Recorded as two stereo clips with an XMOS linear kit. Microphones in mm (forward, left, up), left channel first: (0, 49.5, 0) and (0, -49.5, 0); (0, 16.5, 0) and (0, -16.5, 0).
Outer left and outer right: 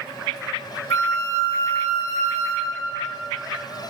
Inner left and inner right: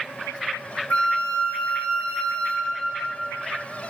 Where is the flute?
40° left (ahead or behind), 1.9 m.